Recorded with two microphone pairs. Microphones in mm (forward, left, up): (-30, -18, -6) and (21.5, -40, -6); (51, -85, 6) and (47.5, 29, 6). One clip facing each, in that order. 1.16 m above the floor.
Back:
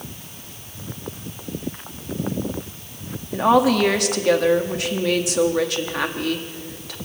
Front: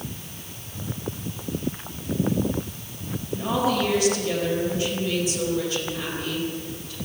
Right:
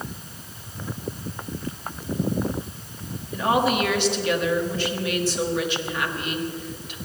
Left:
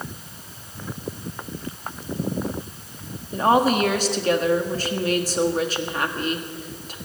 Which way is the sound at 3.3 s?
145° left.